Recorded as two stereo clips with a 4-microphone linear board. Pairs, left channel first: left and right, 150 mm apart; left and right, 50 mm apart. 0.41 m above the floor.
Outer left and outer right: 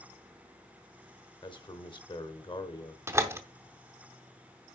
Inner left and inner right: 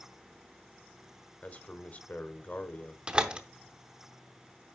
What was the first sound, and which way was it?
A man speaking, 35° left (ahead or behind).